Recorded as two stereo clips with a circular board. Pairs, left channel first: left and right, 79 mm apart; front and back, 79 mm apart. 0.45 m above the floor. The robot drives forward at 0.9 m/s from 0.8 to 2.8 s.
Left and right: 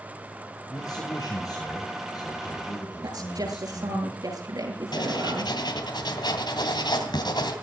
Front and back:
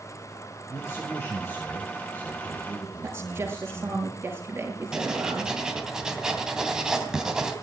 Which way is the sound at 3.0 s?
120° right.